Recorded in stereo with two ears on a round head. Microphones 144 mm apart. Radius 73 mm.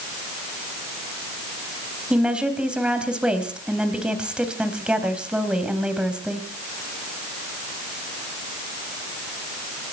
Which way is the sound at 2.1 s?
5° right (ahead or behind).